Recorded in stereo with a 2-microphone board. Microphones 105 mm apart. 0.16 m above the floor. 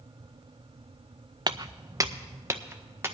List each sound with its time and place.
1.5 s footsteps: 45° right (ahead or behind), 0.5 m; by 3.1 s 25° right (ahead or behind), 1.8 m